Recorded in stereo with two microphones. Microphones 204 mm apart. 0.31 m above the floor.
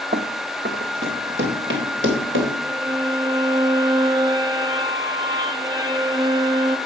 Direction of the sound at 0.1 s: 55° right (ahead or behind).